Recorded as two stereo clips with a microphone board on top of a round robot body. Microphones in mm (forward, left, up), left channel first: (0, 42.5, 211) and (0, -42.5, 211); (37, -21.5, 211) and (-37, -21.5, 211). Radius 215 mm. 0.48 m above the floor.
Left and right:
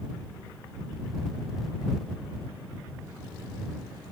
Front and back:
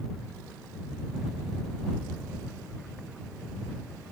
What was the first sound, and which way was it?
Only background noise.